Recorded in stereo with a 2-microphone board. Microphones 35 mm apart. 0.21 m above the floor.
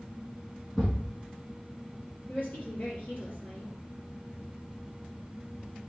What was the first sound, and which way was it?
A thud, 20° left (ahead or behind).